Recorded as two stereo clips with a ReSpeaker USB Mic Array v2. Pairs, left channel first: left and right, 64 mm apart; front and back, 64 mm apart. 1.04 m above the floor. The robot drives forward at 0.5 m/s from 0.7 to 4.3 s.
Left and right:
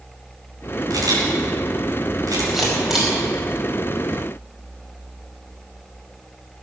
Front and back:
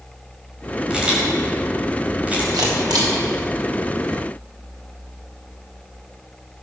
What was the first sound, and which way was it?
A camera shutter, 105° right.